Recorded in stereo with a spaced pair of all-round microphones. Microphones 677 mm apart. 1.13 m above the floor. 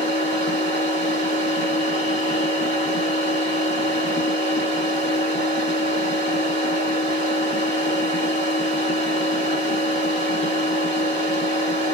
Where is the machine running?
15° left (ahead or behind), 1.5 m.